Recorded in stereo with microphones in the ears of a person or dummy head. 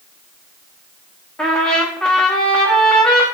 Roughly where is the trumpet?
Centre.